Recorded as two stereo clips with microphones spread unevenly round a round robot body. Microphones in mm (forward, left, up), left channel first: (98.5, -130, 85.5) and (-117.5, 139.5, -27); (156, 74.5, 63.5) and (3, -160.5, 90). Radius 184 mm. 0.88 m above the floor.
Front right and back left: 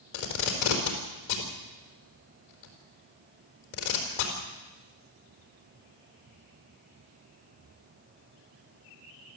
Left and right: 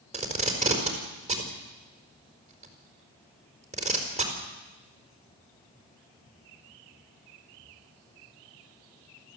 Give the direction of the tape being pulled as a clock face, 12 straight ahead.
2 o'clock.